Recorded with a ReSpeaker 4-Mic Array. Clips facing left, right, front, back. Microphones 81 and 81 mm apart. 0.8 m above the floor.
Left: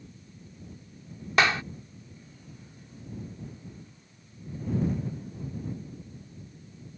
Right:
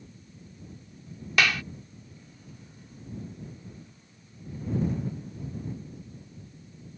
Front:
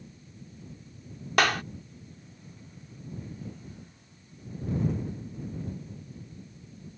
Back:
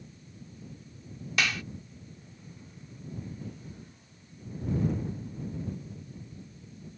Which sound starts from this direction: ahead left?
A clap, at 1.4 s.